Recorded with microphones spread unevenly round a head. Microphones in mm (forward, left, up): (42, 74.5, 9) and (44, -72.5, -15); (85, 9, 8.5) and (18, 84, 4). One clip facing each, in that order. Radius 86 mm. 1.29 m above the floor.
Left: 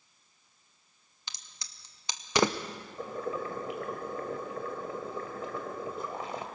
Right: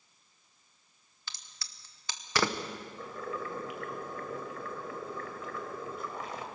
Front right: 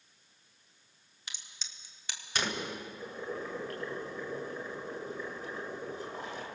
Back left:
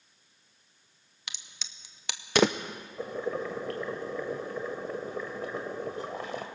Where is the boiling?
150° left, 1.7 m.